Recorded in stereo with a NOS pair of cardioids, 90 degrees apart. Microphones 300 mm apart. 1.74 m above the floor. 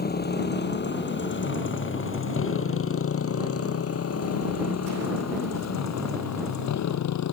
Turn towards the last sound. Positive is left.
turn(degrees=65)